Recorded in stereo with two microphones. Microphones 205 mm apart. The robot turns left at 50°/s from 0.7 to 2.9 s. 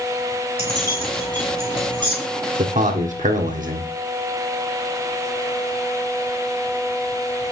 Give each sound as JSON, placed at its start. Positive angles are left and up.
{"t": 0.6, "sound": "keys jangling", "side_deg": -25, "distance_m": 5.5}
{"t": 2.6, "sound": "a man speaking", "side_deg": -40, "distance_m": 1.5}